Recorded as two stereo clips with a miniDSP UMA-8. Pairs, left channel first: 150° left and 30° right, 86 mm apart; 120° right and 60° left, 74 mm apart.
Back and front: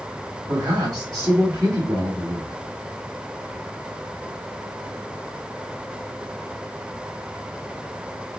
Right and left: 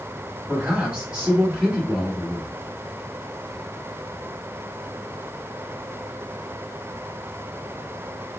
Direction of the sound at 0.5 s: 10° right.